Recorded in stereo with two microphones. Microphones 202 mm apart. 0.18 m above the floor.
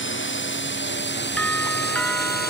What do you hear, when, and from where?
0.0 s a drone: 65° left (ahead or behind); by 2.5 s 45° left (ahead or behind)
1.4 s a doorbell: 5° left (ahead or behind)